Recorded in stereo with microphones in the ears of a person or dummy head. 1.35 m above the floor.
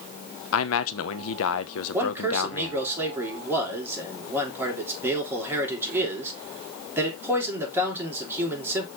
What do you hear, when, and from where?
0.5 s a man speaking: 80° left, 0.9 m
1.9 s a man speaking: 15° right (ahead or behind), 3.5 m